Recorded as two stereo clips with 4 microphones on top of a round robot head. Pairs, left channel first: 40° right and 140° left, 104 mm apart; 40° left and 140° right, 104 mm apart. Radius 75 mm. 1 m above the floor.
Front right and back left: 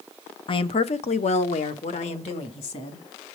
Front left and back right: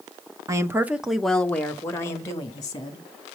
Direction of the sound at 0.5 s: 80° right.